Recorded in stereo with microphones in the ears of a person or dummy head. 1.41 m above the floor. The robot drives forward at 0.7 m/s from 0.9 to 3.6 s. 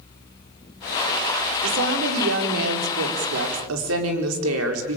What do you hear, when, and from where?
1.6 s a woman speaking: 75° right (ahead or behind), 4.5 m; by 5.0 s 85° right, 4.5 m